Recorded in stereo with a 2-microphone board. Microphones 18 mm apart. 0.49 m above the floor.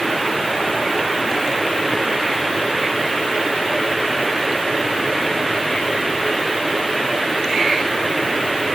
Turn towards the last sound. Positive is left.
No sound to turn to.